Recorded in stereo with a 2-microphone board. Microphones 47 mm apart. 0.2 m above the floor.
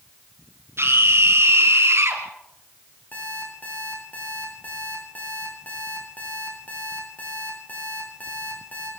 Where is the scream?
65° right (ahead or behind), 5.5 m; by 2.2 s 70° right (ahead or behind), 4 m.